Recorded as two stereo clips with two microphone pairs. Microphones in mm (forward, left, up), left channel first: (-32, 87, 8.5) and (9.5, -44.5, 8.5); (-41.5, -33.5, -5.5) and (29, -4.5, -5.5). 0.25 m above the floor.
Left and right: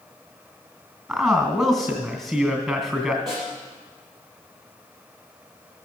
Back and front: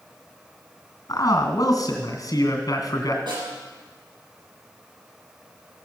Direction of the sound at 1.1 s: 165° right.